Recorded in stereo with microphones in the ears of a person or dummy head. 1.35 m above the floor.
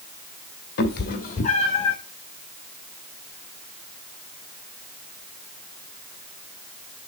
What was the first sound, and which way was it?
A cat meowing, 55° left (ahead or behind).